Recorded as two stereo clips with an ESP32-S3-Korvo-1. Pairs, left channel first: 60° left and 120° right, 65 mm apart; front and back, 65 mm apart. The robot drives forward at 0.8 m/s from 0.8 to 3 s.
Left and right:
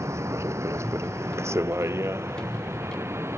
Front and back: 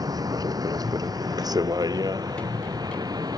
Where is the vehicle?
165° right; by 3.4 s 170° right.